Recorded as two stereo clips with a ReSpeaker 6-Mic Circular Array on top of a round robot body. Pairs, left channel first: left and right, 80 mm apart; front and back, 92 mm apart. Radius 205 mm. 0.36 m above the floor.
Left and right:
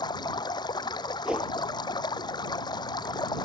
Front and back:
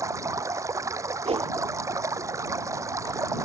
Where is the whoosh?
170° right.